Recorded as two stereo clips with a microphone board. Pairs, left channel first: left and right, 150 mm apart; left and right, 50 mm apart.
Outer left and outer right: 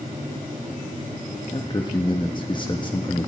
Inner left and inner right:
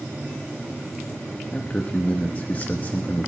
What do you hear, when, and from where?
1.5 s a man speaking: 30° left (ahead or behind), 1.0 m